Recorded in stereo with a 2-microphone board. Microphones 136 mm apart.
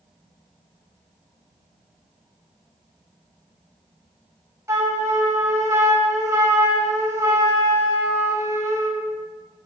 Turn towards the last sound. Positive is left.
turn(degrees=-20)  # may be behind; listen again after turning